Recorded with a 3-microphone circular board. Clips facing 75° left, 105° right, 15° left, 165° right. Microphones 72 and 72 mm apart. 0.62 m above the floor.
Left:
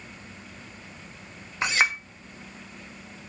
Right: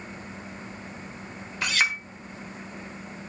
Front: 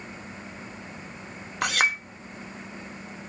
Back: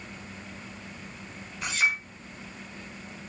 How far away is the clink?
About 1.5 m.